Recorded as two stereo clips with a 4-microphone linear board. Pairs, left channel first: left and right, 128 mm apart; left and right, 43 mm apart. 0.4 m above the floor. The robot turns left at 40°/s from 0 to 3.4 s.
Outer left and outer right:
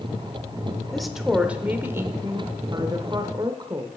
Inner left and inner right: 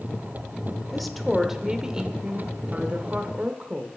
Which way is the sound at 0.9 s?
5° left.